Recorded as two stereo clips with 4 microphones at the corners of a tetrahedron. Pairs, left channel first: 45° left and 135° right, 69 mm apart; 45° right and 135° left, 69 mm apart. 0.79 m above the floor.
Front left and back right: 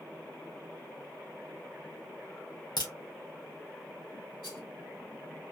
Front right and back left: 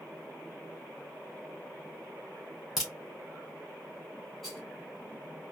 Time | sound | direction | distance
2.8 | a crack | 45° left | 2 m
4.4 | a rattle | 40° left | 1.6 m